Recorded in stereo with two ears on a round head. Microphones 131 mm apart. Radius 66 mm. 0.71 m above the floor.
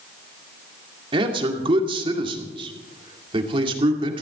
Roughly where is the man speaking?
Right.